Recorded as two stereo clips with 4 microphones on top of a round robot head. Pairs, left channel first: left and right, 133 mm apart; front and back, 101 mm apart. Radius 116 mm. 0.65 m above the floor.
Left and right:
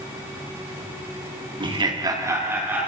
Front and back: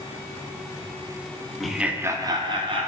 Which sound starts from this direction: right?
Laughter, at 1.6 s.